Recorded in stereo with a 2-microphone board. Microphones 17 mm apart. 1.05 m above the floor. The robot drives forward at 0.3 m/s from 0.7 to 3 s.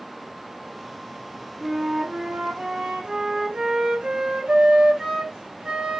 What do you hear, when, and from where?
1.6 s a flute: 80° right, 4 m; by 6.0 s 75° right (ahead or behind), 4.5 m